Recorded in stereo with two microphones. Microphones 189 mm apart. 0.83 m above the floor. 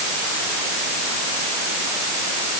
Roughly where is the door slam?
I don't hear a door slam.